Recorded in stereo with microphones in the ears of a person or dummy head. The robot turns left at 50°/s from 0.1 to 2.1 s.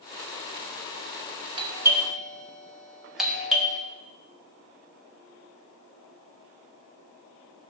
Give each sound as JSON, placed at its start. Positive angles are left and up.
{"t": 1.6, "sound": "a doorbell", "side_deg": -25, "distance_m": 0.6}